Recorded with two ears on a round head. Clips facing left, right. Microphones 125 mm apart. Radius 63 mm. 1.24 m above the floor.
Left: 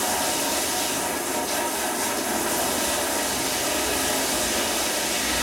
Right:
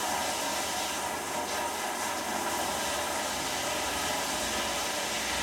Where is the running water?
65° left (ahead or behind), 1.4 m.